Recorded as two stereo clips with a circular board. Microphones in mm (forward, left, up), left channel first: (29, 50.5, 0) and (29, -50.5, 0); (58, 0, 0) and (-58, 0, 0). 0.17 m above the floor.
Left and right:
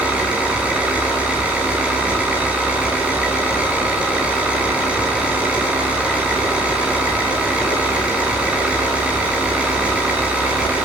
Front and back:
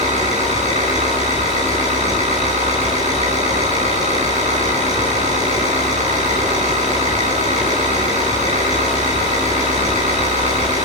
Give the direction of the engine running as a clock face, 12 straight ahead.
6 o'clock.